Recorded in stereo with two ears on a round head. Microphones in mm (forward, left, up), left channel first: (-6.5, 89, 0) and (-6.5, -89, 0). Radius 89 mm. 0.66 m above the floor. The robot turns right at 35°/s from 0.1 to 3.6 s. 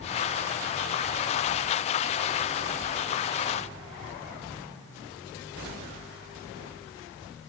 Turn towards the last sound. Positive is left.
No sound to turn to.